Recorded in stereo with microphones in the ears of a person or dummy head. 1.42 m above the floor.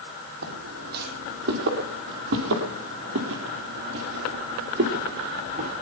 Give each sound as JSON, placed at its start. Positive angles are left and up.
{"t": 0.4, "sound": "footsteps", "side_deg": -50, "distance_m": 4.0}